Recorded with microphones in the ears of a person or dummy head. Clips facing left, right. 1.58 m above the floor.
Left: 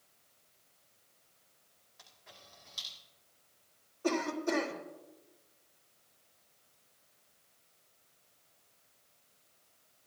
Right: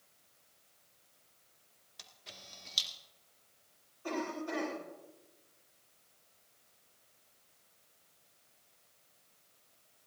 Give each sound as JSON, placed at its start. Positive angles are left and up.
{"t": 2.0, "sound": "a camera shutter", "side_deg": -45, "distance_m": 2.0}
{"t": 4.0, "sound": "a cough", "side_deg": 75, "distance_m": 4.0}